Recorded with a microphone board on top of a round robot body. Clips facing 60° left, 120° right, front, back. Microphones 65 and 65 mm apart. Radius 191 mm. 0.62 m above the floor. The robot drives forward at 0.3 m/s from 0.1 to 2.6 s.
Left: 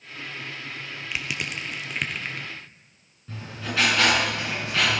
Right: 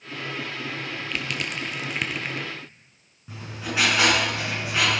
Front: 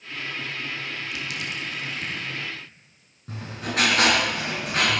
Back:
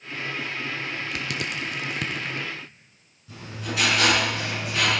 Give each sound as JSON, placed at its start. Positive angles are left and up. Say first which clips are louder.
{"t": 1.1, "sound": "crushing", "louder": "even, back 2 dB", "azimuth_deg": 140, "distance_m": 0.6}
{"t": 3.3, "sound": "writing", "louder": "right 1 dB, front 2 dB", "azimuth_deg": -45, "distance_m": 7.5}